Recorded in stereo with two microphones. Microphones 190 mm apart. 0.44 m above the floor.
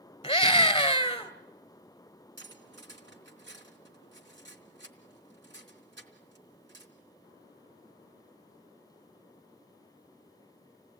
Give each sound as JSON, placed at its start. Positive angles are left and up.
{"t": 0.2, "sound": "a scream", "side_deg": 30, "distance_m": 1.9}
{"t": 2.4, "sound": "cutlery clinking", "side_deg": -80, "distance_m": 3.5}